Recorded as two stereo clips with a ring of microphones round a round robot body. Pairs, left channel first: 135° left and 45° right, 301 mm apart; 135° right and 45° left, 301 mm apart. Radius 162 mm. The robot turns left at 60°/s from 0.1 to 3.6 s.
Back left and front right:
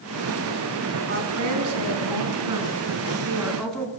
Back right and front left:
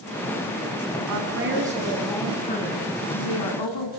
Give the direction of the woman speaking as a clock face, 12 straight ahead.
12 o'clock.